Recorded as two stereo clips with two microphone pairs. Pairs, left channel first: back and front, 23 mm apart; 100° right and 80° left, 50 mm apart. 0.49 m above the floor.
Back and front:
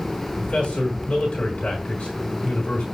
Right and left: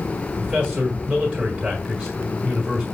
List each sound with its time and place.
0.4 s a man speaking: 145° left, 5.5 m